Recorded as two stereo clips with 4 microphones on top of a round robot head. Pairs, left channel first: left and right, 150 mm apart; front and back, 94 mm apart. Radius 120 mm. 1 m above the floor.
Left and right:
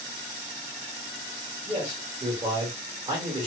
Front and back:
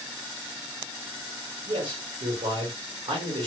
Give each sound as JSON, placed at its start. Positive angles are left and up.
{"t": 1.7, "sound": "a man speaking", "azimuth_deg": -155, "distance_m": 1.4}